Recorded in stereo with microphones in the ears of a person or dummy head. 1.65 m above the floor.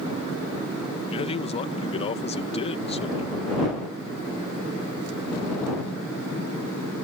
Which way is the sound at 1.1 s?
30° left (ahead or behind).